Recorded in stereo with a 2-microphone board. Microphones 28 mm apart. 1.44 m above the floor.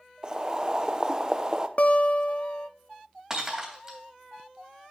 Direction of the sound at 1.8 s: 50° left (ahead or behind).